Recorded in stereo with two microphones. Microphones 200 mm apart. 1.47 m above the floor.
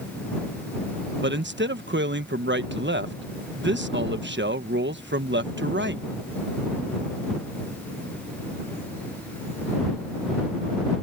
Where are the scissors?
No scissors in this recording.